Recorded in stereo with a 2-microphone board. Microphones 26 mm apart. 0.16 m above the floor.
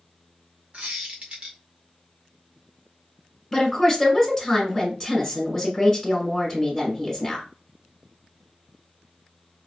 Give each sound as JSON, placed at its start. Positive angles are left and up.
{"t": 0.7, "sound": "a squeak", "side_deg": -45, "distance_m": 1.3}
{"t": 3.5, "sound": "a woman speaking", "side_deg": 15, "distance_m": 1.5}